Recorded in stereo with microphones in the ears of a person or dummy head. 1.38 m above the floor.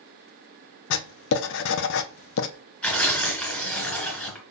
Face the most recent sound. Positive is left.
turn(degrees=5)  # may be behind; listen again after turning